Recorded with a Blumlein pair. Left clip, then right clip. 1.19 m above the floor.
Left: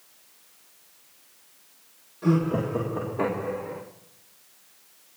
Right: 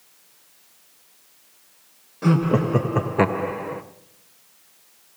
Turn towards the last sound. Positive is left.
turn(degrees=-20)